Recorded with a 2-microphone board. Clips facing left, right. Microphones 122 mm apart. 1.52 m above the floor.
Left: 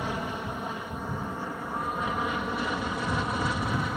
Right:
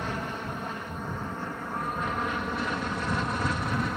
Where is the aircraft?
10° left (ahead or behind); by 4.0 s 5° left (ahead or behind).